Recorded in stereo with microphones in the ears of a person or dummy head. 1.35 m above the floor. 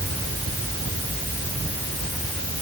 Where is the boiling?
I don't hear boiling.